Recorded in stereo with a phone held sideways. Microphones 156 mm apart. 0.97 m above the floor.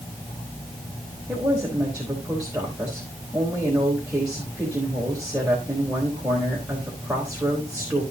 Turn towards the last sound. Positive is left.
turn(degrees=-10)  # may be behind; listen again after turning